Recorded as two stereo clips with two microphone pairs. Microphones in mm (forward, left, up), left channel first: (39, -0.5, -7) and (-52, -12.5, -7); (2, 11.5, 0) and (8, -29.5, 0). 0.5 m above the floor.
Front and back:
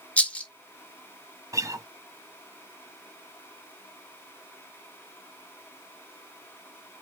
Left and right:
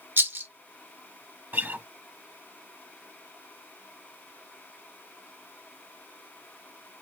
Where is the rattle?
65° right, 0.9 m.